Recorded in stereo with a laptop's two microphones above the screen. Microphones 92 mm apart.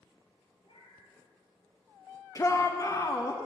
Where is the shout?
35° left (ahead or behind), 0.6 m.